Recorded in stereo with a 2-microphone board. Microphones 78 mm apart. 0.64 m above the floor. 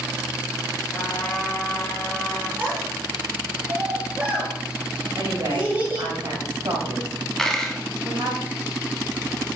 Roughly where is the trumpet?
Centre.